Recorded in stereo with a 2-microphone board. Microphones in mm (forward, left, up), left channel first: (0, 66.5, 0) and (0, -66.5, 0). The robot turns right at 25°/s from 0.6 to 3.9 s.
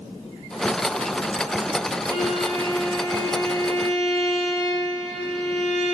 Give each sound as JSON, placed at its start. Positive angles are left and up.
{"t": 2.1, "sound": "a violin", "azimuth_deg": 135, "distance_m": 0.8}